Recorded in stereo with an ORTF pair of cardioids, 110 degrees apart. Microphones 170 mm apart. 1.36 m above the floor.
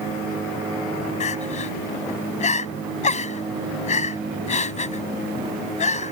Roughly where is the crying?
Ahead left.